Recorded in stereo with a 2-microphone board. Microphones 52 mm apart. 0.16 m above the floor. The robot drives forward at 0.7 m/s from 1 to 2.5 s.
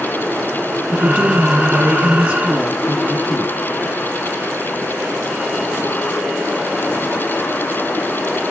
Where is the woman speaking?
25° right (ahead or behind), 1.4 m.